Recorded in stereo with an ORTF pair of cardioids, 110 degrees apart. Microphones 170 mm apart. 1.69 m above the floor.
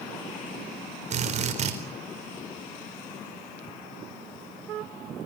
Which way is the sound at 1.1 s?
45° right.